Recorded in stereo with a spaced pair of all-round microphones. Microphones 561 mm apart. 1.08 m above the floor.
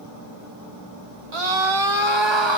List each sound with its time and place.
1.3 s a scream: 60° right (ahead or behind), 2.5 m; by 2.6 s 50° right (ahead or behind), 3 m